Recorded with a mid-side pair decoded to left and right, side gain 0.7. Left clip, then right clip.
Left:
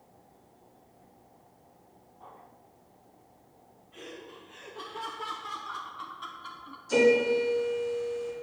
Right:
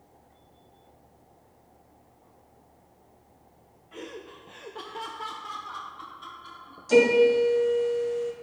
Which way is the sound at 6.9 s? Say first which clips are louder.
Right 4 dB; 50° right.